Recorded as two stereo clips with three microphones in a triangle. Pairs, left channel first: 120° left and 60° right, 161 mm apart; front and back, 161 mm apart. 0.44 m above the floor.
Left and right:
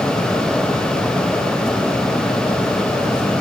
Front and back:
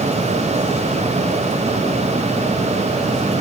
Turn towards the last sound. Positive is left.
No sound to turn to.